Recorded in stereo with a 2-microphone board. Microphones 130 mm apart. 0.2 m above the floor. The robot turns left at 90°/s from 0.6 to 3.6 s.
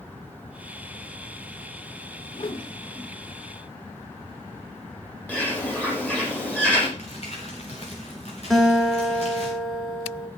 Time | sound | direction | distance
2.3 | a whoosh | 45° left (ahead or behind) | 1.9 m
5.3 | a bird | 10° left (ahead or behind) | 7 m
7.0 | crumpling | 55° left (ahead or behind) | 5 m
8.5 | a guitar | 5° left (ahead or behind) | 3 m